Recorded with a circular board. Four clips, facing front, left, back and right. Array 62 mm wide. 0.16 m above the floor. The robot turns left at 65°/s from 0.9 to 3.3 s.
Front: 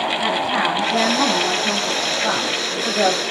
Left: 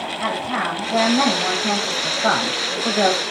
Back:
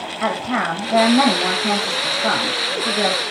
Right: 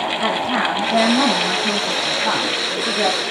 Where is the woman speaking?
155° right, 7.5 m; by 3.2 s 55° left, 7.5 m.